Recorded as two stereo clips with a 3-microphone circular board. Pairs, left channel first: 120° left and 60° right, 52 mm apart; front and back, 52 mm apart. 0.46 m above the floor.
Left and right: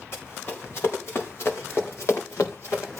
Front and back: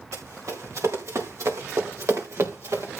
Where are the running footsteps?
160° left, 5.5 m; by 3.0 s 150° left, 4 m.